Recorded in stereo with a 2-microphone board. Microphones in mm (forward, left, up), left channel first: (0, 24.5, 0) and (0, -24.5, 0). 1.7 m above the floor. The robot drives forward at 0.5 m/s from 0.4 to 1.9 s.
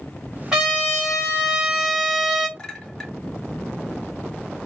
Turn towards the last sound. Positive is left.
turn(degrees=5)  # may be behind; listen again after turning